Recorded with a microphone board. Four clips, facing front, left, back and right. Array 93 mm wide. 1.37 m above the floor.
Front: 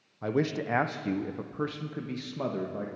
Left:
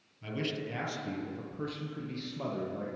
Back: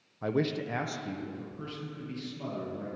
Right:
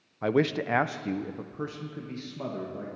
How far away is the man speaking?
About 0.6 m.